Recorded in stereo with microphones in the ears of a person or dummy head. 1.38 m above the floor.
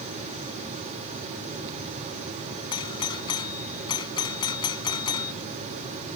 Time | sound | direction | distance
2.7 | a doorbell | 20° left (ahead or behind) | ?